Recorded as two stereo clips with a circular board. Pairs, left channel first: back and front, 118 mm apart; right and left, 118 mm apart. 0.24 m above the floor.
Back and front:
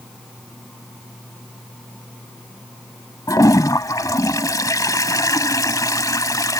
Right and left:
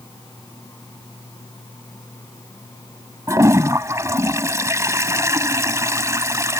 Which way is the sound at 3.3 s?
140° left.